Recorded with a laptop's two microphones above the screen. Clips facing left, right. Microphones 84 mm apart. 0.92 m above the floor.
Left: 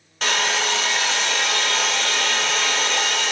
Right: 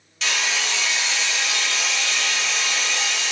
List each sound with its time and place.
0.2 s a hair dryer: 50° left (ahead or behind), 0.5 m